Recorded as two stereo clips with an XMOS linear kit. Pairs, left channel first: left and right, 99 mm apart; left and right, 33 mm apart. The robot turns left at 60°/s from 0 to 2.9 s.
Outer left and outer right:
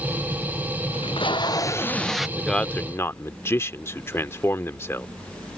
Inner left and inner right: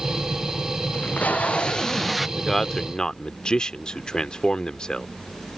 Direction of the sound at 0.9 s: 75° left.